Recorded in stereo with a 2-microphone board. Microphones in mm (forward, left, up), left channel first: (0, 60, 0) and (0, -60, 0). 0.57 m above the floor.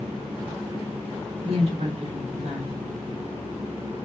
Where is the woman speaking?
55° right (ahead or behind), 1.1 m.